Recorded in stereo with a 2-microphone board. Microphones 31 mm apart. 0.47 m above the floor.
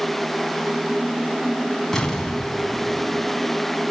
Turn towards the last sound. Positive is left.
turn(degrees=5)  # may be behind; listen again after turning